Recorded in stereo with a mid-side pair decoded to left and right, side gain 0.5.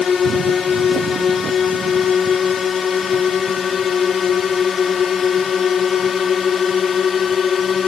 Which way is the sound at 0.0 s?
40° left.